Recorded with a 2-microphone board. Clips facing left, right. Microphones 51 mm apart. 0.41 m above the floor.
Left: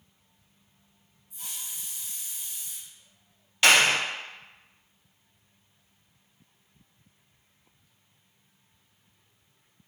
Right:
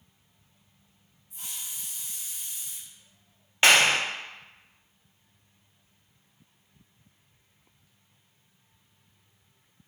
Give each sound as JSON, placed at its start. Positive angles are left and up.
{"t": 1.3, "sound": "a hiss", "side_deg": -80, "distance_m": 1.1}
{"t": 3.6, "sound": "a clap", "side_deg": -30, "distance_m": 0.6}